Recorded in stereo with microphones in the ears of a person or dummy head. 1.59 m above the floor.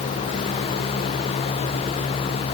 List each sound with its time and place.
Only background noise.